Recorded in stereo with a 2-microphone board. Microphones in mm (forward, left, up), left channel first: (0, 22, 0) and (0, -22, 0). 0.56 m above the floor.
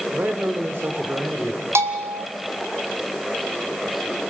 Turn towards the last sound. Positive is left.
turn(degrees=-85)